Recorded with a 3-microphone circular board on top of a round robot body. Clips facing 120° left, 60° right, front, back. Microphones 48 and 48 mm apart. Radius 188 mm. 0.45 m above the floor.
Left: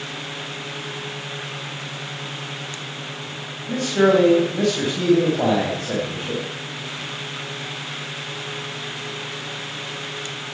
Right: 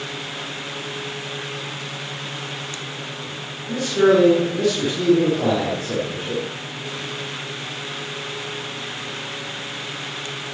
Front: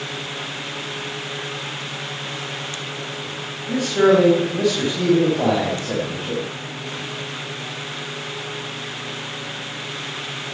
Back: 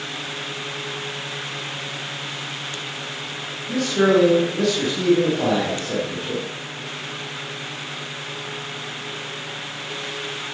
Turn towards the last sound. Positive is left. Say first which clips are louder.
# right 1 dB, front 2 dB
turn(degrees=70)